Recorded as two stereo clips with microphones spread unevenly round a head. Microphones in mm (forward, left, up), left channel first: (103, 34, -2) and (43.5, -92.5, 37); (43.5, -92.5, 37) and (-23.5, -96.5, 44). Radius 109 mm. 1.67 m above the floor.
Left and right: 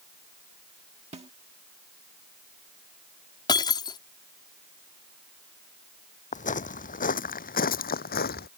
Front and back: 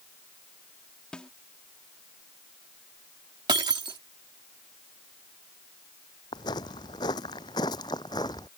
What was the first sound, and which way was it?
A snare drum, 75° right.